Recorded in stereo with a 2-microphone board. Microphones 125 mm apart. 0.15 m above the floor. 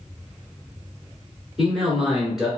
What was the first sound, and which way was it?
A man speaking, centre (ahead or behind).